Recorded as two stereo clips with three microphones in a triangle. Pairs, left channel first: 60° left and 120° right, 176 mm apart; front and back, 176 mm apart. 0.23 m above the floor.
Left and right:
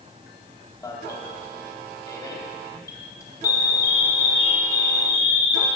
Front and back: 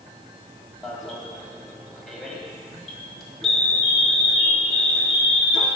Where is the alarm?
85° left, 2 m.